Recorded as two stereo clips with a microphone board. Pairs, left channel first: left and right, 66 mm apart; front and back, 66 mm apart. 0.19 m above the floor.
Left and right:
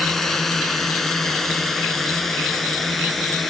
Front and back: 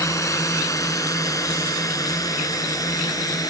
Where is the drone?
5° left.